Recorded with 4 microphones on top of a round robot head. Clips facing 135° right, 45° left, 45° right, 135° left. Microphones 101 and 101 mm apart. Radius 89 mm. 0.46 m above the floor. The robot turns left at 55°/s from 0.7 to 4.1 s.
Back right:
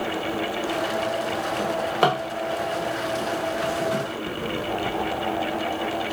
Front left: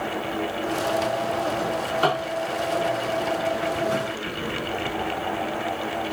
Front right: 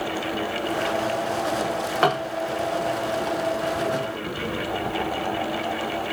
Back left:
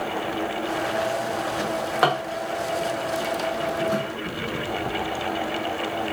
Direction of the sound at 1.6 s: 120° right.